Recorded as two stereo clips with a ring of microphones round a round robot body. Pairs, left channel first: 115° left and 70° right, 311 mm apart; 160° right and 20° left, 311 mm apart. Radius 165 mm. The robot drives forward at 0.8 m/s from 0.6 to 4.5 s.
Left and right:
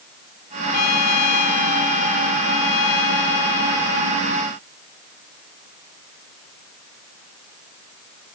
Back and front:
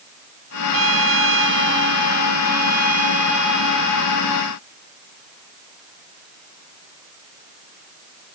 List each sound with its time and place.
0.7 s a trumpet: 70° left; by 4.3 s 100° left